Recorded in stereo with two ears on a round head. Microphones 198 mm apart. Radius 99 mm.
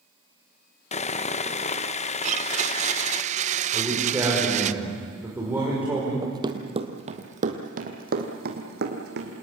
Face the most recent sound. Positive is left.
turn(degrees=-50)  # may be behind; listen again after turning